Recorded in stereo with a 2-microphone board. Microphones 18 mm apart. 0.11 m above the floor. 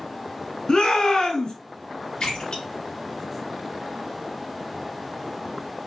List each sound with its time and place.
0.7 s a shout: 45° left (ahead or behind), 1.5 m
2.2 s a splash: 45° left (ahead or behind), 2.5 m